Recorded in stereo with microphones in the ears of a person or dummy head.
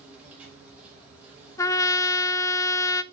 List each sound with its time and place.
0.0 s an insect: 5° right (ahead or behind), 4 m
1.6 s a trumpet: 20° left (ahead or behind), 0.6 m